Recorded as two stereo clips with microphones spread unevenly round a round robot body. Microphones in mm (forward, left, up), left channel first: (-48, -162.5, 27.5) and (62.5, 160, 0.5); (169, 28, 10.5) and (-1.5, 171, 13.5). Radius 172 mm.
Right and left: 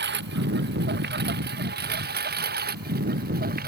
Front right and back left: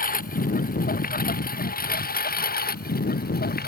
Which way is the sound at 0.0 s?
10° left.